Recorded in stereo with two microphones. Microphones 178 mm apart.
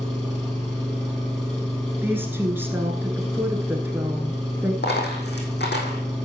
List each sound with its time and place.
0.0 s an engine running: 5° left (ahead or behind), 3.5 m
2.0 s a woman speaking: 10° right (ahead or behind), 1.1 m
4.8 s a dropped coin: 70° left (ahead or behind), 2.5 m